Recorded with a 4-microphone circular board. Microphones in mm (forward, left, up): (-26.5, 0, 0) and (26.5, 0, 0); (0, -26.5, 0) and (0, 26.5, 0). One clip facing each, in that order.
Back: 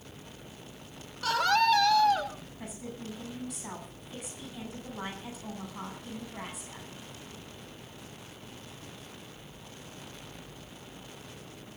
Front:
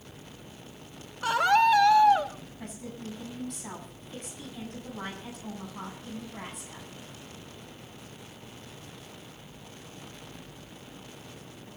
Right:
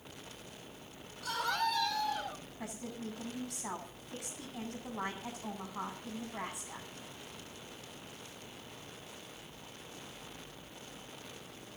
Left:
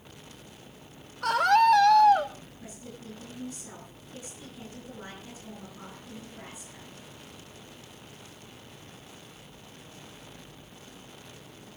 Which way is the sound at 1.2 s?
70° left.